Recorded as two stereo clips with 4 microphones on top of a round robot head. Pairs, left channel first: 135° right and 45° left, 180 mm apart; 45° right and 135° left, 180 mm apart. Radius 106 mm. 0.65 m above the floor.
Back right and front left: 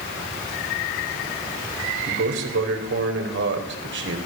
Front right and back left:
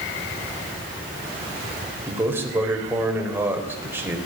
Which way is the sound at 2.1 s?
55° left.